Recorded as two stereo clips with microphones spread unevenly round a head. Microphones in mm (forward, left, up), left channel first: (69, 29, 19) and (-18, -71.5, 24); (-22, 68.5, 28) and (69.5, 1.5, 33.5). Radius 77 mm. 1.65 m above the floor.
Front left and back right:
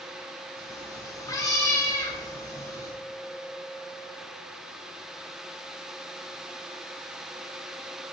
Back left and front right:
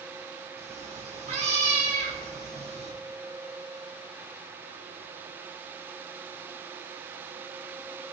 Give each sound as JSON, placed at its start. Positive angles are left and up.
{"t": 0.6, "sound": "a cat meowing", "azimuth_deg": -15, "distance_m": 4.0}